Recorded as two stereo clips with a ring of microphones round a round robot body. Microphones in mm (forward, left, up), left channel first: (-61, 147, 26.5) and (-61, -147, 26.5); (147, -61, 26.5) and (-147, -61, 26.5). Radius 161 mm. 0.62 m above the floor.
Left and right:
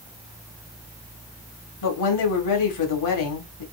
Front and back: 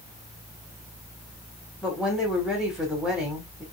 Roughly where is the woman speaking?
Left.